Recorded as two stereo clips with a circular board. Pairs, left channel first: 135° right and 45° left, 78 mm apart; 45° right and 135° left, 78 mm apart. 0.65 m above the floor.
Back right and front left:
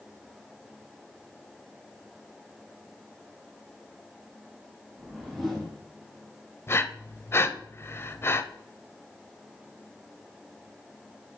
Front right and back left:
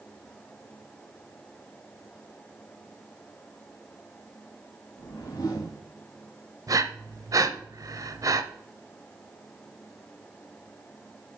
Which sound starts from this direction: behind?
Breathing, at 6.7 s.